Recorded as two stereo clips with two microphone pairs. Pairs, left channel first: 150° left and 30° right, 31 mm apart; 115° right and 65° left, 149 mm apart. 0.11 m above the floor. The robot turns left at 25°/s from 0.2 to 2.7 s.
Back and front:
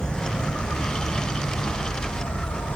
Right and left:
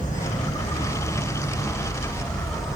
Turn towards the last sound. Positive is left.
turn(degrees=155)